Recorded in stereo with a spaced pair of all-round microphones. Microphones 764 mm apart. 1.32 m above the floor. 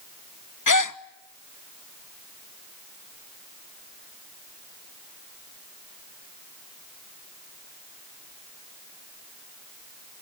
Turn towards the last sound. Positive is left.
turn(degrees=30)  # may be behind; listen again after turning